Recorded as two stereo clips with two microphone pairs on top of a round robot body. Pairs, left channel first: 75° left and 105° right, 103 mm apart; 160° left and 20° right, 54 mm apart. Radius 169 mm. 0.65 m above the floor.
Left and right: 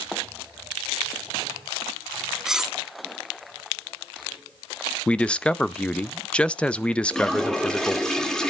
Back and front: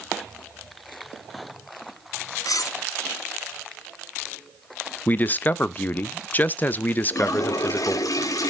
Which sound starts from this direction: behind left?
A man speaking, at 5.1 s.